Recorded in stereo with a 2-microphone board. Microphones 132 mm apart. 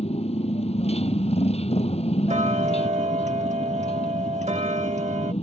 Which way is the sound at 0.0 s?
50° left (ahead or behind).